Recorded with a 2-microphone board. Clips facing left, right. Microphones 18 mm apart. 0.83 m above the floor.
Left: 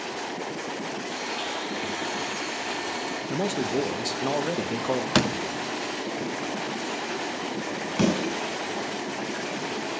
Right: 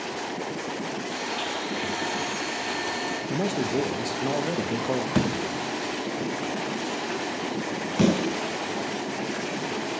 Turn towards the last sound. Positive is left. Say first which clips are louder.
# right 2 dB
turn(degrees=10)  # may be behind; listen again after turning